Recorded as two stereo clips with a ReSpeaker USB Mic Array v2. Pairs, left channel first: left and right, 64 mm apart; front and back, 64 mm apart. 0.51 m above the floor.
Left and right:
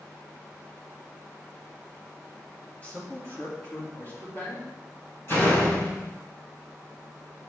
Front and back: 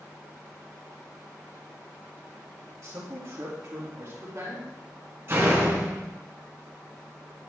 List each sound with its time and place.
2.8 s a man speaking: 155° left, 2 m; by 4.7 s 140° left, 4 m
5.3 s a door slam: 135° left, 3 m